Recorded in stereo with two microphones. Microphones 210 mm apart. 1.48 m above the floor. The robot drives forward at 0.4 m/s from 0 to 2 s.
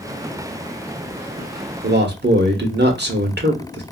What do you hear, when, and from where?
1.8 s a man speaking: 60° right (ahead or behind), 0.9 m; by 3.8 s 55° right (ahead or behind), 0.9 m